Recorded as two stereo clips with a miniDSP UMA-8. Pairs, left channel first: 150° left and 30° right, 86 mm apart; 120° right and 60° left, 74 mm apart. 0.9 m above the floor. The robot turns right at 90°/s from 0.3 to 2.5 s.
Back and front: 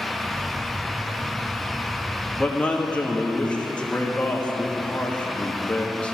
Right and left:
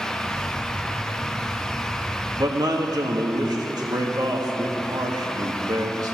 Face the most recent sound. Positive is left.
turn(degrees=75)